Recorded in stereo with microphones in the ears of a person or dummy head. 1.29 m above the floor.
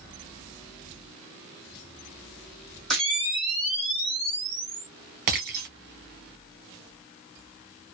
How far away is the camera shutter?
About 1.7 m.